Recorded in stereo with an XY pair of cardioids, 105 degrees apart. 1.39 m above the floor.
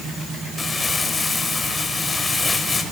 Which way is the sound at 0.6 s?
25° left.